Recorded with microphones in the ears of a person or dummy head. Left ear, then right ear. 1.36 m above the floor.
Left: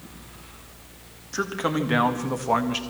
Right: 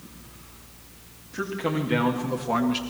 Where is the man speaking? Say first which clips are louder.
Left 2 dB; 50° left (ahead or behind), 2.5 m; by 2.8 s 15° left (ahead or behind), 1.4 m.